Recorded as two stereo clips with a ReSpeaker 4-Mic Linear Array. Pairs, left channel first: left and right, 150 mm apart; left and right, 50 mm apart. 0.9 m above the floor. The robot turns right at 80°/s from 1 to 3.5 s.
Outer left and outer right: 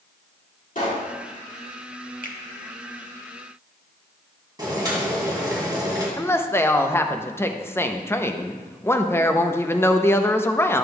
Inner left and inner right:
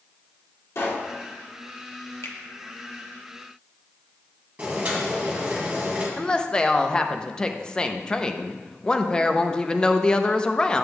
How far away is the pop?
About 2 m.